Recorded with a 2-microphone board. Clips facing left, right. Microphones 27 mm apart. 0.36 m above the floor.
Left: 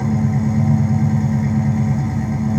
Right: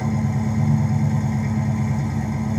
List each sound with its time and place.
0.0 s an engine running: 5° left (ahead or behind), 1.8 m